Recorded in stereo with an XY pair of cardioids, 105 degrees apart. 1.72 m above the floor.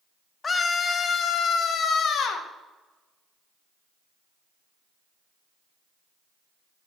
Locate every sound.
0.4 s a scream: 35° left, 1.8 m; by 2.5 s 65° left, 2.5 m